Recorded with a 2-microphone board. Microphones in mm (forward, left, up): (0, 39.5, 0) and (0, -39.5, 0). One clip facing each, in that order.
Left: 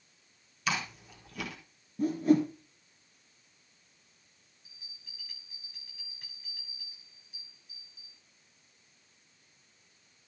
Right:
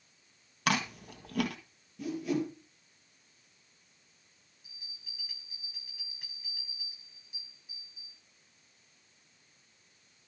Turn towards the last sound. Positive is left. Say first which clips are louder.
# right 3 dB
turn(degrees=-5)  # may be behind; listen again after turning